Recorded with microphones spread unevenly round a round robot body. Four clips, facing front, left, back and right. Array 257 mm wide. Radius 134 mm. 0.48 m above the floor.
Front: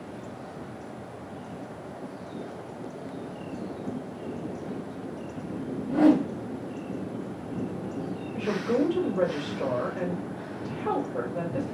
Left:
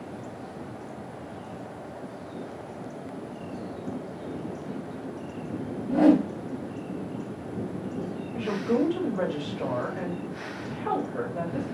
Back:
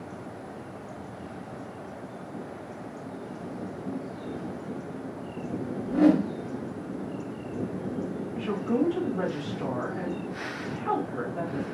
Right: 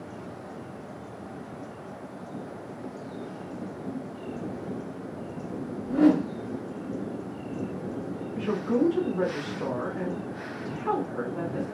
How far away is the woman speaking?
About 2 m.